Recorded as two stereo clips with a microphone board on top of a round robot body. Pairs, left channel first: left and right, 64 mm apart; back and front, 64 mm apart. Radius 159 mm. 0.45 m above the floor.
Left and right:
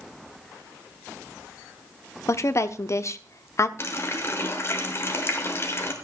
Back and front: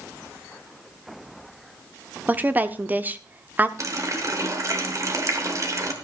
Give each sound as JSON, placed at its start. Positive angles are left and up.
{"t": 2.3, "sound": "a woman speaking", "azimuth_deg": 60, "distance_m": 1.2}
{"t": 3.8, "sound": "a running tap", "azimuth_deg": 40, "distance_m": 2.0}